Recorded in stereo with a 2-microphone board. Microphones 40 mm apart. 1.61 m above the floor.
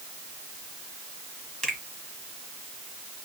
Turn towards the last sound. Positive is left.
turn(degrees=20)  # may be behind; listen again after turning